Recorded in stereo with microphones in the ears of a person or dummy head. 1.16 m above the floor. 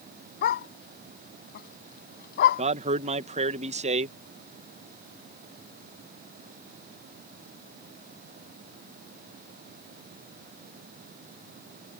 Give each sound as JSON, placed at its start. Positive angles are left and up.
{"t": 0.4, "sound": "a dog barking", "side_deg": 60}
{"t": 2.6, "sound": "a man speaking", "side_deg": -35}